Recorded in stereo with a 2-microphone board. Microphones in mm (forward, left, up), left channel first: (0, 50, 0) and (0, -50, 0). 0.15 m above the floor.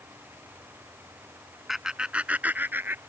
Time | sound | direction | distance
1.7 | laughter | 5° right (ahead or behind) | ?